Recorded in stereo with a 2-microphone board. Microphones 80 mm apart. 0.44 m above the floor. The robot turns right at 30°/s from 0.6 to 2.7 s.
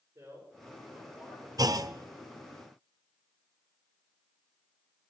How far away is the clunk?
About 0.6 m.